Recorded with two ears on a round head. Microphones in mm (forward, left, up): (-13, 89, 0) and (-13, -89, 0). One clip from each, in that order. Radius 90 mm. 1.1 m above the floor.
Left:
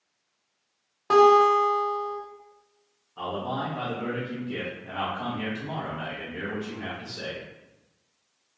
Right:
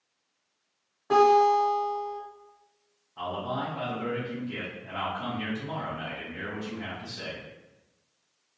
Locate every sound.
1.1 s a guitar: 80° left, 0.8 m
3.2 s a man speaking: 5° left (ahead or behind), 0.8 m